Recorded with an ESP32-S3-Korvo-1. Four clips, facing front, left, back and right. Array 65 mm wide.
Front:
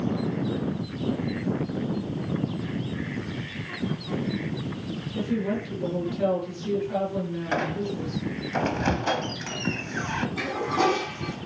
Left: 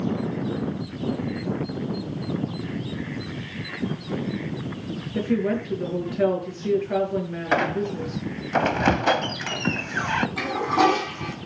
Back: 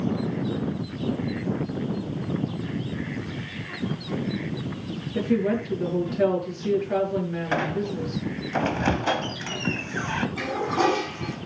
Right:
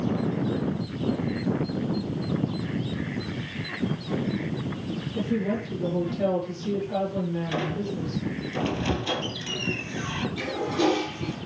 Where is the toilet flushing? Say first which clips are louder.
Left 4 dB, back 1 dB; 95° left, 5.5 m.